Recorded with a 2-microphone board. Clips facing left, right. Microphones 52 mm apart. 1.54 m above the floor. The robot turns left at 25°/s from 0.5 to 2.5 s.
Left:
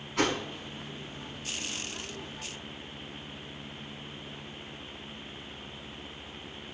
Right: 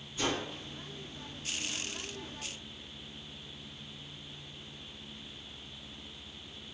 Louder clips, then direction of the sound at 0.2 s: Left 5 dB; 70° left (ahead or behind).